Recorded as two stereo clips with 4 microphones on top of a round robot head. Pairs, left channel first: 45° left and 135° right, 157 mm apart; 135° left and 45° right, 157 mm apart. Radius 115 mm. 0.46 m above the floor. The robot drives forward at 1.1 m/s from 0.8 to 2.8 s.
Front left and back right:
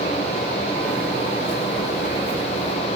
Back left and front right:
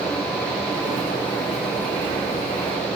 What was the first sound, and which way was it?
Only background noise.